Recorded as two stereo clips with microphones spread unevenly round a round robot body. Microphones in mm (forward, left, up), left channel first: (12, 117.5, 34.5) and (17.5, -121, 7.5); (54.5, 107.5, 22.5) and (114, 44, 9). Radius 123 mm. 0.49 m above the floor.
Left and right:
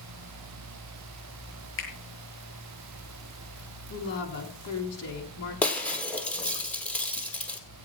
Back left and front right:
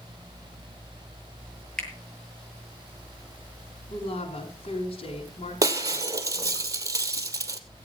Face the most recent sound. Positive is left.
turn(degrees=10)